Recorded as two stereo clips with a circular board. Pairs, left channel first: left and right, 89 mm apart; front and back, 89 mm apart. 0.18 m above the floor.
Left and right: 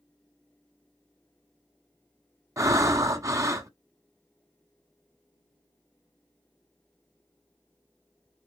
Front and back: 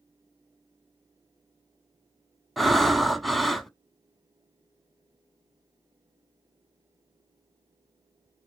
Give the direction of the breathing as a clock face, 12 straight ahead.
3 o'clock.